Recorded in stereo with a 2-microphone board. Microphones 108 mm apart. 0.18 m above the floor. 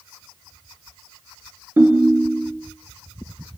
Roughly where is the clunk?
I don't hear a clunk.